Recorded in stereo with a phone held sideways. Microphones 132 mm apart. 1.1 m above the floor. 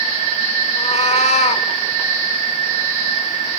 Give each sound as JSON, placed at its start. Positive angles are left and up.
{"t": 0.8, "sound": "a cat meowing", "side_deg": 55, "distance_m": 0.9}